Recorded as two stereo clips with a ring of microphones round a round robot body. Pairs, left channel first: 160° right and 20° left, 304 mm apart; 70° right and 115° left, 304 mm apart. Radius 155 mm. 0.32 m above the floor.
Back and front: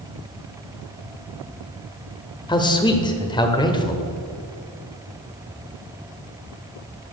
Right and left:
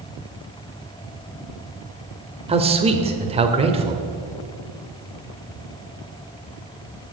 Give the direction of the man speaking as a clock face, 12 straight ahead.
7 o'clock.